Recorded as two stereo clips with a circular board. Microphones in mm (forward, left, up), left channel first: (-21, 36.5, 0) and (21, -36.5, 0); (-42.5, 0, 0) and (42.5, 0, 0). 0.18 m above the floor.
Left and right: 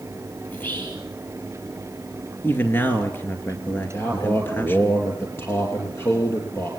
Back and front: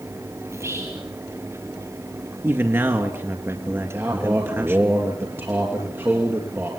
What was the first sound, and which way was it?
Whispering, 55° left.